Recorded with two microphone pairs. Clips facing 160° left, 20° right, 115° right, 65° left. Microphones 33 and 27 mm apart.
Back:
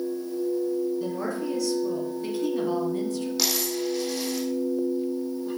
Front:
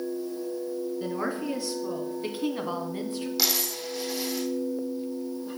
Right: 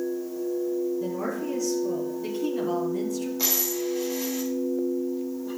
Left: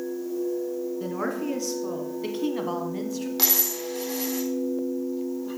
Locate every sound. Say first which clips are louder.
1.0 s a woman speaking: back 1 dB, left 1 dB; 40° left, 2.5 m; by 3.3 s 15° left, 1.6 m
3.4 s a dropped coin: back 2 dB, left 1 dB; 65° left, 3.5 m